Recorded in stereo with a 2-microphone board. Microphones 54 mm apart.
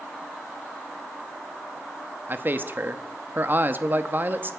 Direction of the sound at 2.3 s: 40° right (ahead or behind).